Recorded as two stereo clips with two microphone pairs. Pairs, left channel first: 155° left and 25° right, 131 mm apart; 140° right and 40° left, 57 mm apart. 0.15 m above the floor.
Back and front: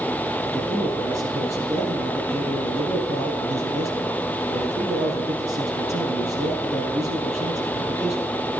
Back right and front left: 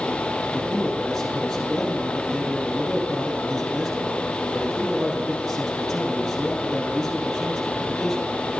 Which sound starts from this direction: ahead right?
A man speaking, at 0.5 s.